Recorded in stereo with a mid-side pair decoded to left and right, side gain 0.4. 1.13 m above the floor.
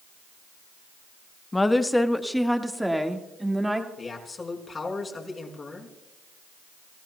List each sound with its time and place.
1.5 s a woman speaking: 20° left, 1.1 m; by 3.9 s 10° right, 2.5 m
4.0 s a man speaking: 40° left, 4.5 m